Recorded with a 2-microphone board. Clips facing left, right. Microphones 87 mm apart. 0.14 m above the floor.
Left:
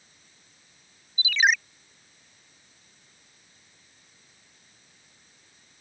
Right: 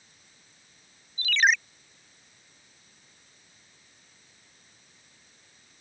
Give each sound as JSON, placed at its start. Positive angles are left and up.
{"t": 1.2, "sound": "a ringtone", "side_deg": 5}